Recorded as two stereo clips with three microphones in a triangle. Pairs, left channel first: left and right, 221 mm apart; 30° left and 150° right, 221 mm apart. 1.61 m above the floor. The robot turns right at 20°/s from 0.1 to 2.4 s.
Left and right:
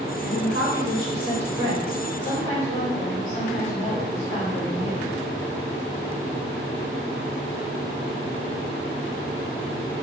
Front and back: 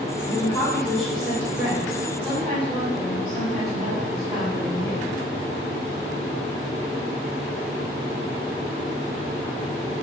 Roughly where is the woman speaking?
Left.